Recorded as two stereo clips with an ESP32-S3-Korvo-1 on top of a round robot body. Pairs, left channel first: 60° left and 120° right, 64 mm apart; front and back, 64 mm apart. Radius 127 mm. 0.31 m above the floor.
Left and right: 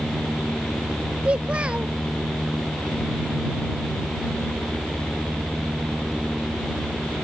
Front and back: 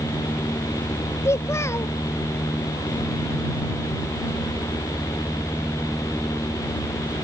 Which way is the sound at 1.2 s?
45° right.